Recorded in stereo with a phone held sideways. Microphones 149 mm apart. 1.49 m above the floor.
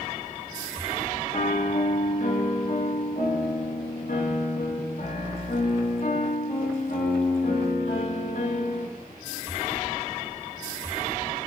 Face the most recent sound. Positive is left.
turn(degrees=60)  # may be behind; listen again after turning